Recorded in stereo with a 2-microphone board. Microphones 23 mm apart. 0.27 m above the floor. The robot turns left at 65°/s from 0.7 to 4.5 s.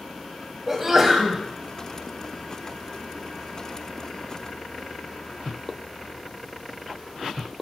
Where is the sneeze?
150° right, 1.5 m; by 1.4 s 165° left, 1.5 m.